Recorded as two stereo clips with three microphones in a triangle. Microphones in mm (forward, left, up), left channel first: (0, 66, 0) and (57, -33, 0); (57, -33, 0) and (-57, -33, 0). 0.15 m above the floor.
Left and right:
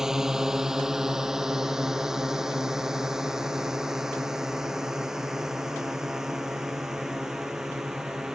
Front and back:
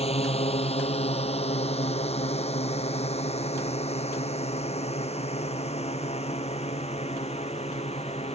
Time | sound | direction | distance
0.0 | a drone | 25° left | ?